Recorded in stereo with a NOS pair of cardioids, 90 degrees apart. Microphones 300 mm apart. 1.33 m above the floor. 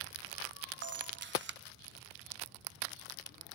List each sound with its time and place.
0.8 s a camera shutter: 35° right, 0.6 m